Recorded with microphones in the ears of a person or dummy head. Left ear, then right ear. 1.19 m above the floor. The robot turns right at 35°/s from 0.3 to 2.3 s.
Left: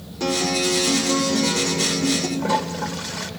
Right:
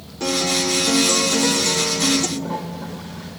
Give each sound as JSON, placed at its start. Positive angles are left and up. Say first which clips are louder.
{"t": 0.2, "sound": "a guitar", "louder": "right 1 dB", "azimuth_deg": 180, "distance_m": 0.9}
{"t": 2.4, "sound": "a toilet flushing", "louder": "left 6 dB", "side_deg": 70, "distance_m": 0.7}